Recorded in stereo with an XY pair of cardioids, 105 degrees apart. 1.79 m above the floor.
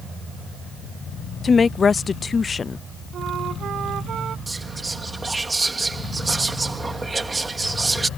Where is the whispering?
25° right.